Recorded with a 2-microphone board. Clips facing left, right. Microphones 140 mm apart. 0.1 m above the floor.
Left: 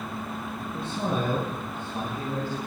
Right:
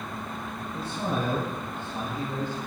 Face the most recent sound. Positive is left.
turn(degrees=10)  # may be behind; listen again after turning